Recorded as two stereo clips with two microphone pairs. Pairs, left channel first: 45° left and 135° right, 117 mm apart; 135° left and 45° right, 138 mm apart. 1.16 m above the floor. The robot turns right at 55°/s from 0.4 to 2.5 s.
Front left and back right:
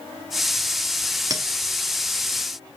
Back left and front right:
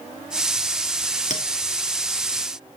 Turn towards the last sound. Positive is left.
turn(degrees=-130)